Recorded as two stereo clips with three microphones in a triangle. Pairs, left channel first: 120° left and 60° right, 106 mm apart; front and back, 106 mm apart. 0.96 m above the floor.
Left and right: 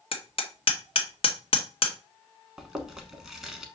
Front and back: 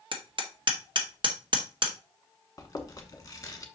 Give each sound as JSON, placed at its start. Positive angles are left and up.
{"t": 0.1, "sound": "hammering", "azimuth_deg": 145, "distance_m": 1.0}
{"t": 2.6, "sound": "chewing", "azimuth_deg": 25, "distance_m": 1.0}